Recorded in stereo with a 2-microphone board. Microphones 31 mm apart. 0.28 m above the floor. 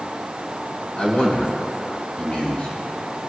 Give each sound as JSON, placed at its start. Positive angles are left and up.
{"t": 1.0, "sound": "a man speaking", "side_deg": 35, "distance_m": 3.5}